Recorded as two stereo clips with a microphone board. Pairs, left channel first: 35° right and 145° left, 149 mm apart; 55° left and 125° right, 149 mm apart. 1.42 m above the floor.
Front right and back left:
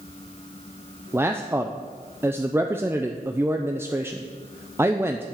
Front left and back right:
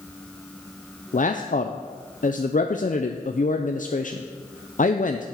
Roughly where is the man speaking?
Left.